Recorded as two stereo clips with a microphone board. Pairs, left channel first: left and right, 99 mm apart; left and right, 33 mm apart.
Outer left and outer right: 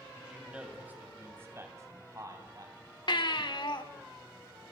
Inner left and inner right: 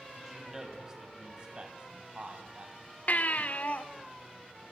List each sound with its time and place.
0.2 s a man speaking: 10° right (ahead or behind), 3 m; by 4.1 s 50° right (ahead or behind), 5 m
3.1 s a baby crying: 55° left (ahead or behind), 1.1 m